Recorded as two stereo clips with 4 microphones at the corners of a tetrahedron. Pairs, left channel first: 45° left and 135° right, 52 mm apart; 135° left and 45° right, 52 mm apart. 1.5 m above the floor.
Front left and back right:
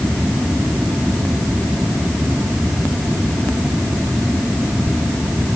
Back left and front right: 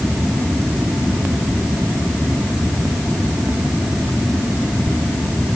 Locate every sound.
Only background noise.